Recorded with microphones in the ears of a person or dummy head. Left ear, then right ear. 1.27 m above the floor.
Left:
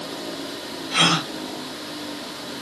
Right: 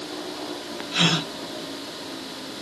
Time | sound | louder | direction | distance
0.9 | a gasp | left 3 dB | 60° left (ahead or behind) | 2 m